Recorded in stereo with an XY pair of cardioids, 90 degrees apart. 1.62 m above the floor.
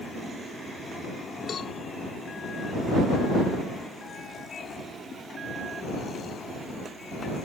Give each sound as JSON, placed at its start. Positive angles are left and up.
{"t": 1.5, "sound": "a cowbell", "azimuth_deg": 50}